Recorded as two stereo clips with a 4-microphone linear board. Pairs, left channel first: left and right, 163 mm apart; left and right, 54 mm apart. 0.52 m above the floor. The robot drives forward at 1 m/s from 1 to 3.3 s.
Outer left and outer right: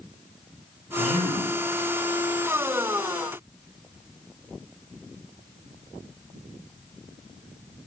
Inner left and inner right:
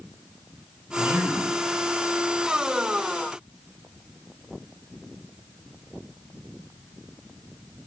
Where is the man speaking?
45° right (ahead or behind), 1.8 m.